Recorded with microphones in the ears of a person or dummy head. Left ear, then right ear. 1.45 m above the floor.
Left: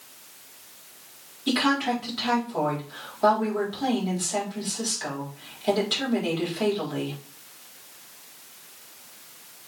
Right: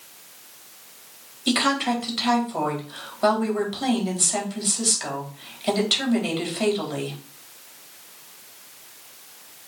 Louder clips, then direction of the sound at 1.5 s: Right 2 dB; 20° right (ahead or behind).